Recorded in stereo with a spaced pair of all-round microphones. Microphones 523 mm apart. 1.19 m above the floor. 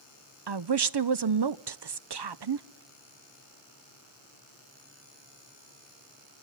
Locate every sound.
0.5 s a woman speaking: 50° right (ahead or behind), 0.5 m